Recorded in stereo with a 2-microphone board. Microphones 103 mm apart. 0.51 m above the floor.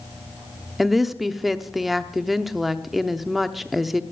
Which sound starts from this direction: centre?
A woman speaking, at 0.8 s.